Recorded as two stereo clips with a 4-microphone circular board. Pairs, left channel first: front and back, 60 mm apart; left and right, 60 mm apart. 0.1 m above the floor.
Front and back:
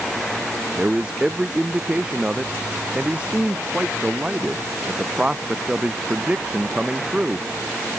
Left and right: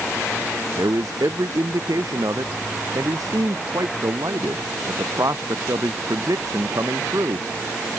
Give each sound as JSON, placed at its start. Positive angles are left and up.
{"t": 0.8, "sound": "a man speaking", "azimuth_deg": -105}